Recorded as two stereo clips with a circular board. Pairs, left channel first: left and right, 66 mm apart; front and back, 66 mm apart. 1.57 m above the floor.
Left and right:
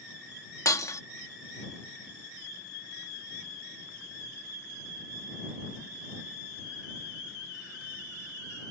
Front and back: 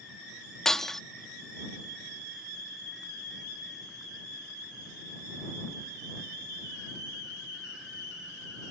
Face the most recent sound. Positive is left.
turn(degrees=80)